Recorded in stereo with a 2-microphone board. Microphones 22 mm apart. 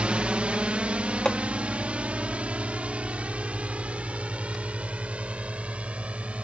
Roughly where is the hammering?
Left.